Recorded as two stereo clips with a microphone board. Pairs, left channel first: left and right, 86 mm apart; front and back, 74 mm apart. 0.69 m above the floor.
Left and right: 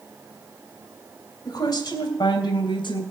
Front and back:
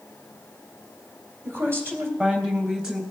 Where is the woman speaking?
130° left, 3 m; by 3.0 s 105° left, 3.5 m.